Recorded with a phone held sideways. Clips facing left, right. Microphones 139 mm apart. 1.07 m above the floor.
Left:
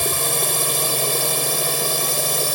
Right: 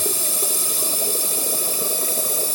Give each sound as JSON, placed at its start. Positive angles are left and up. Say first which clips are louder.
{"t": 0.0, "sound": "a drone", "louder": "left 4 dB", "side_deg": 70}